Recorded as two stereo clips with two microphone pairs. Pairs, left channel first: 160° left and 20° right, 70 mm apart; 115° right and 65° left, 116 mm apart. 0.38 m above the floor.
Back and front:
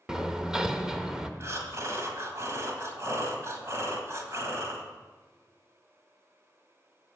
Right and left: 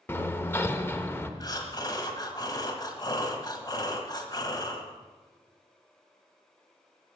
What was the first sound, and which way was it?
Hammering, 90° right.